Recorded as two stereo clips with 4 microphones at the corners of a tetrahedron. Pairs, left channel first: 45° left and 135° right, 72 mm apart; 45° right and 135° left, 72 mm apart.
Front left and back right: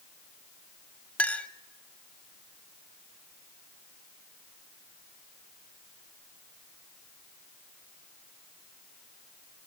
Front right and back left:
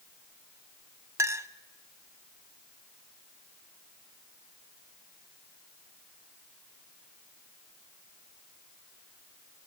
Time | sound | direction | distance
1.2 | a clink | 110° left | 0.7 m